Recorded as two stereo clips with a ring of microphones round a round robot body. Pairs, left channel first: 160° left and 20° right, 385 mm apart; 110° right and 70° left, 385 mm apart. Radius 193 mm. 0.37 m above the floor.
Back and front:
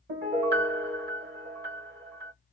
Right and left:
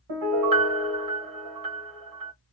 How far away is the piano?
About 1.0 m.